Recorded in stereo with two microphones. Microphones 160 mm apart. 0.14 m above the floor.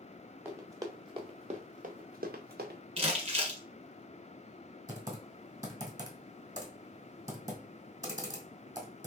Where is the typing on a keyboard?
20° right (ahead or behind), 1.4 m.